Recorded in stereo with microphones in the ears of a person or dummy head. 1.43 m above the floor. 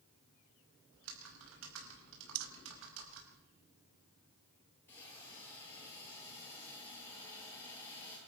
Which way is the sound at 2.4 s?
60° right (ahead or behind).